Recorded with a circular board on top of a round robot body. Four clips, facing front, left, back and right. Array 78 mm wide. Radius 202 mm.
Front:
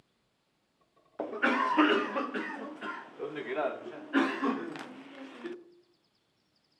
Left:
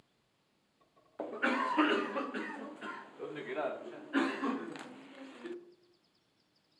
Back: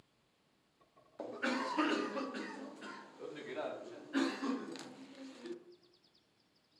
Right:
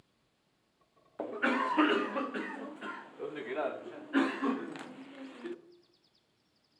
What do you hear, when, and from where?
1.2 s a cough: 10° right, 1.8 m